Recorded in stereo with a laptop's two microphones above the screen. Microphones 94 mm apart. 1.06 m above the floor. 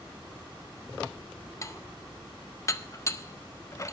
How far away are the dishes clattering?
About 0.5 m.